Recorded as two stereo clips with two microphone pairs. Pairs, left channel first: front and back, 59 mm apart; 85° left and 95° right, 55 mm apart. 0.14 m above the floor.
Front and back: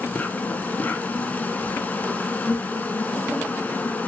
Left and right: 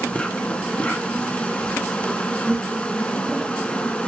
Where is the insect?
40° left, 1.3 m.